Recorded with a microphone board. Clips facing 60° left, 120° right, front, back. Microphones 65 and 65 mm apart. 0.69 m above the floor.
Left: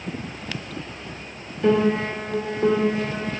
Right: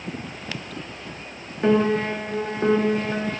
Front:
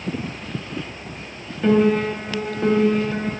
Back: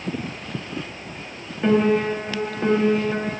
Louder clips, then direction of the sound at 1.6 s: Even, front 1 dB; 110° right.